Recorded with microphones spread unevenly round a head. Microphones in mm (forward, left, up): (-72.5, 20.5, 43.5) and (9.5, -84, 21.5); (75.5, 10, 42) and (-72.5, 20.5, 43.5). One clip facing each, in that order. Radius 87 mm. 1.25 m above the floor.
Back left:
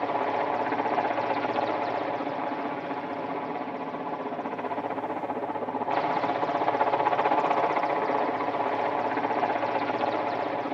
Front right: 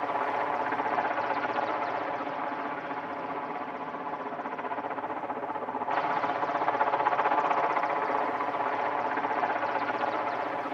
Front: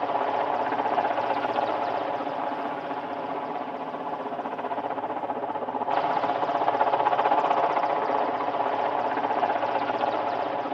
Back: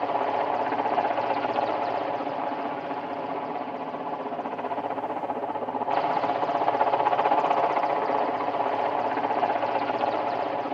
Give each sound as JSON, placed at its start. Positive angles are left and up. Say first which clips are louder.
{"t": 0.0, "sound": "a helicopter", "louder": "back left 3 dB, even", "azimuth_deg": 95}